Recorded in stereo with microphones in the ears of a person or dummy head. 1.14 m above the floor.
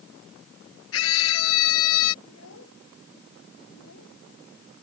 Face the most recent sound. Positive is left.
turn(degrees=85)